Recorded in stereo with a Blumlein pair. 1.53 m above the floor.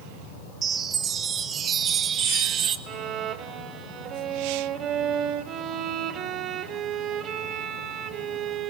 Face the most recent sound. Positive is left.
turn(degrees=-30)